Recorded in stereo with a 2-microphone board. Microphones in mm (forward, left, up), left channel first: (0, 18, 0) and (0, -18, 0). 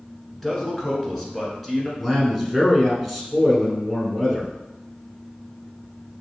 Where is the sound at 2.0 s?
Centre (ahead or behind), 1.0 m.